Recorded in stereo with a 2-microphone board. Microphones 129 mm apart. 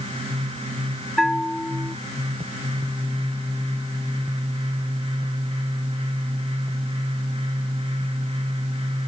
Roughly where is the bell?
Centre.